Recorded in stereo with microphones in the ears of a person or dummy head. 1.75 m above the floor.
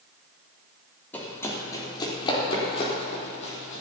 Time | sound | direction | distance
1.1 | running footsteps | 10° left (ahead or behind) | 3.5 m